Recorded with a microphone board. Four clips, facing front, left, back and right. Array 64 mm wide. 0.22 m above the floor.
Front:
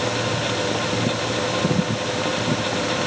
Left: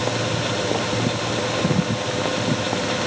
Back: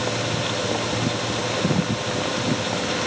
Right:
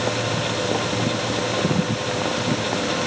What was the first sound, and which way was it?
Only background noise.